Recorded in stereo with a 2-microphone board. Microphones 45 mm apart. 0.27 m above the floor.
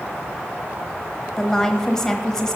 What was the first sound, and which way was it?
A woman speaking, 15° left (ahead or behind).